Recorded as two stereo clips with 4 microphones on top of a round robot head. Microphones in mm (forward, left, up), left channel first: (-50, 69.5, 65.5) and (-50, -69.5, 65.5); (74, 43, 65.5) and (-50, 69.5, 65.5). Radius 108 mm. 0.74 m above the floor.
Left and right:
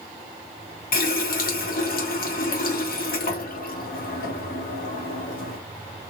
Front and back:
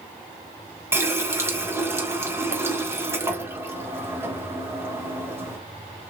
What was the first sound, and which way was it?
A running tap, 95° left.